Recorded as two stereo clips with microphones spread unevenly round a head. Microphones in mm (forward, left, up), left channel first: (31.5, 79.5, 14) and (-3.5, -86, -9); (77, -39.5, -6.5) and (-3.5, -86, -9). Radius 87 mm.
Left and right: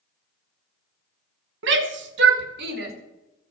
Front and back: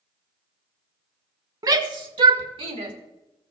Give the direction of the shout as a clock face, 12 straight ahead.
4 o'clock.